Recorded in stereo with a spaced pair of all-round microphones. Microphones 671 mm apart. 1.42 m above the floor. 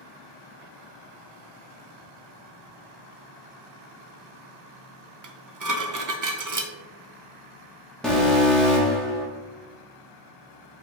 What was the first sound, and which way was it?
Dishes clattering, 30° right (ahead or behind).